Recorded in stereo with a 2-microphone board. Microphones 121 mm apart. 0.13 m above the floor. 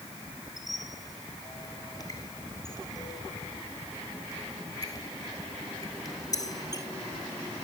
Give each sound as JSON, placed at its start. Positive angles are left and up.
{"t": 0.6, "sound": "a squeak", "side_deg": 30, "distance_m": 2.5}